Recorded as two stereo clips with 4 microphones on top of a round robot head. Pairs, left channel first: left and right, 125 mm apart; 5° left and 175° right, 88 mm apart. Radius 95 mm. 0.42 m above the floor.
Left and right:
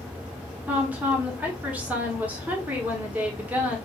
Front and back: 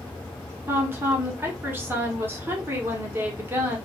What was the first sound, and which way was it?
A woman speaking, 150° right.